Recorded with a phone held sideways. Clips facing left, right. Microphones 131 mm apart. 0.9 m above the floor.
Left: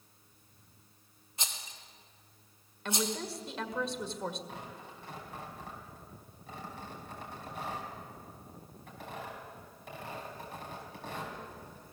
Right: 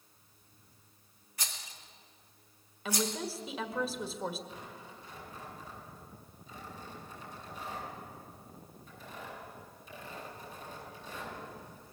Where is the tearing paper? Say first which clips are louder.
Left 2 dB; 65° left (ahead or behind), 6 m.